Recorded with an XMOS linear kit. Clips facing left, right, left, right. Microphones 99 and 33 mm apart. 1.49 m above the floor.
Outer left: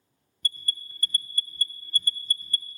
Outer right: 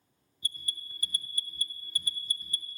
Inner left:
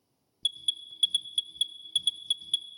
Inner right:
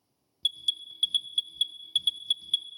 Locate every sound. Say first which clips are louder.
0.4 s an alarm: outer left 6 dB, inner right 1 dB; 5° right (ahead or behind), 0.6 m